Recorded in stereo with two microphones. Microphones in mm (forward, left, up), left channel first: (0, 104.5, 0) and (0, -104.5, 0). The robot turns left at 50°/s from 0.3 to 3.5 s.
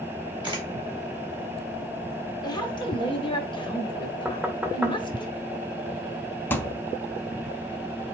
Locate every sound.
0.4 s a camera shutter: 20° right (ahead or behind), 1.6 m; by 0.7 s 25° right (ahead or behind), 1.6 m
2.4 s a woman speaking: 20° left (ahead or behind), 0.9 m
4.2 s knocking: 10° right (ahead or behind), 0.9 m
6.5 s a thud: 10° left (ahead or behind), 0.6 m